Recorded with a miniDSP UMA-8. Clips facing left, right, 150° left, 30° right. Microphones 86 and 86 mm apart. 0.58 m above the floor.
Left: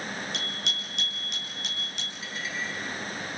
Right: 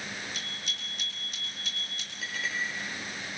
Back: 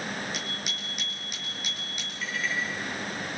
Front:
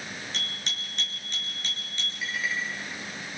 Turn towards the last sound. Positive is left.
turn(degrees=-110)